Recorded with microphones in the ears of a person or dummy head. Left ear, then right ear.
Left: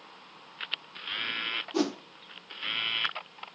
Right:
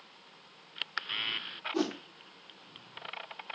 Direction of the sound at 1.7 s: 25° left (ahead or behind).